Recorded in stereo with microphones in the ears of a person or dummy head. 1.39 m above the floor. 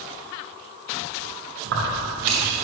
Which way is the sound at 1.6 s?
65° right (ahead or behind).